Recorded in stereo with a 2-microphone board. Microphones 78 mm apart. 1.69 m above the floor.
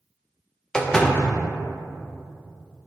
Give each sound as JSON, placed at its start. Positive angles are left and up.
{"t": 0.7, "sound": "a door slam", "side_deg": 10, "distance_m": 0.8}